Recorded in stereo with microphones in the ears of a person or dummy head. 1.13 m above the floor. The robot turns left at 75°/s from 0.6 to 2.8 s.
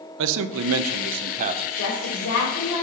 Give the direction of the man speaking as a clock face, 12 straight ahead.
3 o'clock.